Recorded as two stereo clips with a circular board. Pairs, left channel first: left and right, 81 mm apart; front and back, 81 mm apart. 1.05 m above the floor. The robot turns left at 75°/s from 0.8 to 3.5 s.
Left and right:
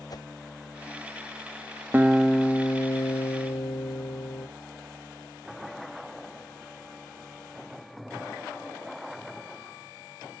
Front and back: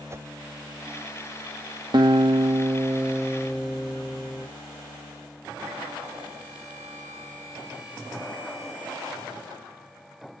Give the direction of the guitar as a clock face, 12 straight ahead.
5 o'clock.